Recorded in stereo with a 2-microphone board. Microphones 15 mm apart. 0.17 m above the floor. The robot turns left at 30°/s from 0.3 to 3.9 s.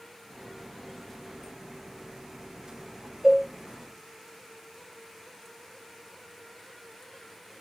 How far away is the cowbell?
About 1.3 m.